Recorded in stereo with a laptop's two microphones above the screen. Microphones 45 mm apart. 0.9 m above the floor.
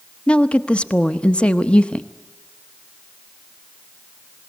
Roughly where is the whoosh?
No whoosh in this recording.